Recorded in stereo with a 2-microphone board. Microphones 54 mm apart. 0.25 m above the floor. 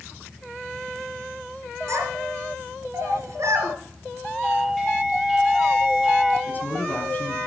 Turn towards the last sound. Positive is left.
turn(degrees=35)  # may be behind; listen again after turning